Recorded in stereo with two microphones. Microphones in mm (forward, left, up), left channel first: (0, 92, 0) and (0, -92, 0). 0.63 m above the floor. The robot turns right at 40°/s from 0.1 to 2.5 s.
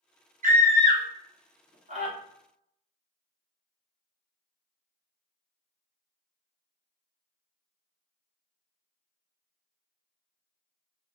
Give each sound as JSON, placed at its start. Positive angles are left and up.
{"t": 0.4, "sound": "a scream", "side_deg": -50, "distance_m": 1.2}